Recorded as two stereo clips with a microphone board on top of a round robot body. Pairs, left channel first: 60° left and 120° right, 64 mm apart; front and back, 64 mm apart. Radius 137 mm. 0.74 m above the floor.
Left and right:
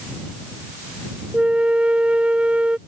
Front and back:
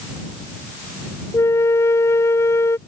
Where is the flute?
45° right.